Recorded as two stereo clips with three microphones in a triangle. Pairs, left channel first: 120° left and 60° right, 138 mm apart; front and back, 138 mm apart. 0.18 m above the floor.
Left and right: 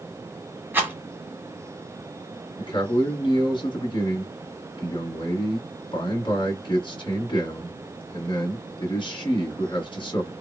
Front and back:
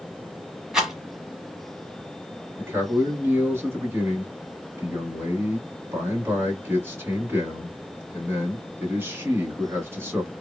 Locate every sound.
0.7 s a rattle: 100° right, 1.2 m
2.6 s a man speaking: 120° left, 1.5 m